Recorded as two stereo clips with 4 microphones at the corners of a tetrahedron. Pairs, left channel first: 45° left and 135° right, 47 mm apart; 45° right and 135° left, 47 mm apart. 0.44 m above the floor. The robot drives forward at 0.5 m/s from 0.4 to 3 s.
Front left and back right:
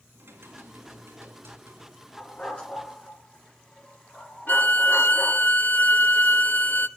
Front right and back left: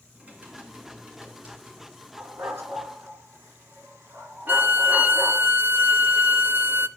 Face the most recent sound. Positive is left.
turn(degrees=85)